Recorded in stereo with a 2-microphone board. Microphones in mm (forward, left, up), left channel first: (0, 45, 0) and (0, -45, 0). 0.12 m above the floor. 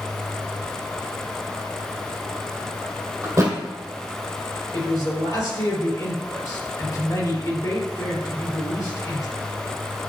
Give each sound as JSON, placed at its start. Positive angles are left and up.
{"t": 3.2, "sound": "a thud", "side_deg": -30, "distance_m": 1.8}
{"t": 4.7, "sound": "a man speaking", "side_deg": 40, "distance_m": 3.0}